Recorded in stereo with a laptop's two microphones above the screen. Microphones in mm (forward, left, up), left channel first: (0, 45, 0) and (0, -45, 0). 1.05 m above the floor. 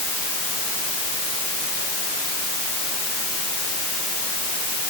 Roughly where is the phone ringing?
No phone ringing in this recording.